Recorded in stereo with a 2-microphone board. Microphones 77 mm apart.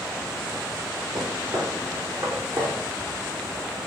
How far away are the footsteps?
About 4 m.